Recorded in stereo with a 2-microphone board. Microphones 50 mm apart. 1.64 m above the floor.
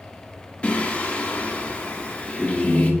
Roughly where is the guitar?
No guitar in this recording.